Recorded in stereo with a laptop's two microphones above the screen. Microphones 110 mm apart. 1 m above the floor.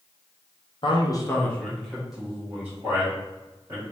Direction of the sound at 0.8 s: 55° left (ahead or behind).